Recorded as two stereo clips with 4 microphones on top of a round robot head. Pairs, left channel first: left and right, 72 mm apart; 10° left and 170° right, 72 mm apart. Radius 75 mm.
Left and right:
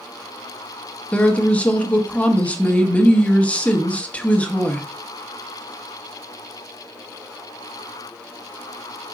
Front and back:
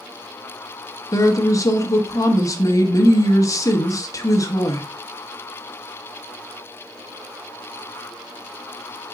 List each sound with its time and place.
1.1 s a woman speaking: 25° left, 1.0 m